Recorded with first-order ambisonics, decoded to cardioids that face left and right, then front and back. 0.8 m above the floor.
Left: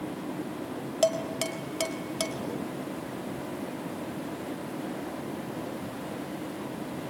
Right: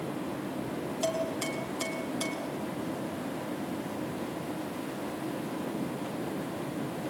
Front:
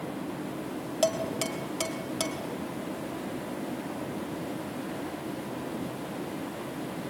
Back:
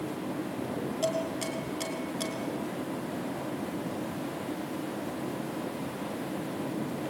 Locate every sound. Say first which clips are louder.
1.0 s dishes clattering: left 5 dB, front 4 dB; 55° left, 3 m